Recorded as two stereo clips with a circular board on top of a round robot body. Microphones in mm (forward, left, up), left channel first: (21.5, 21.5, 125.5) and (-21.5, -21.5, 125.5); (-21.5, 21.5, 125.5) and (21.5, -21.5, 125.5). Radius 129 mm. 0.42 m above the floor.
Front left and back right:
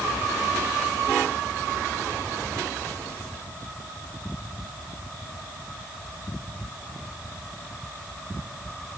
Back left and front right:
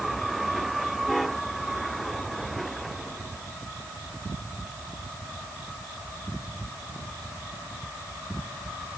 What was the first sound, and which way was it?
Only background noise.